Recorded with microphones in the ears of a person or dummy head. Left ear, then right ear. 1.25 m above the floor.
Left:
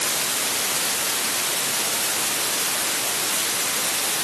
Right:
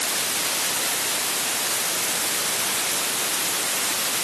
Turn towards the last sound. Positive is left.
No sound to turn to.